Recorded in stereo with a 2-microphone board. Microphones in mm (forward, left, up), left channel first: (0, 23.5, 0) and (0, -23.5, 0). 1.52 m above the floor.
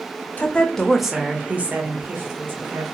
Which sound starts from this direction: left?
A woman speaking, at 0.4 s.